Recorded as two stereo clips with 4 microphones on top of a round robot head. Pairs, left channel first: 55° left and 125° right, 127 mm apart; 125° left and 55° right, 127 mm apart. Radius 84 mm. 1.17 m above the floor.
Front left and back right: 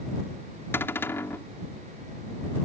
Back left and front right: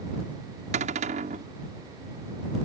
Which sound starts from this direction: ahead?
A cupboard door, at 0.7 s.